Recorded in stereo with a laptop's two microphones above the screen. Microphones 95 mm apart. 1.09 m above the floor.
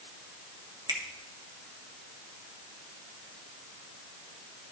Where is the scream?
I don't hear a scream.